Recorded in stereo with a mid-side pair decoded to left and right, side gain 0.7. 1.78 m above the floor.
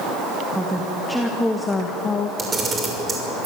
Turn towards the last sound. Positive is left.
turn(degrees=-25)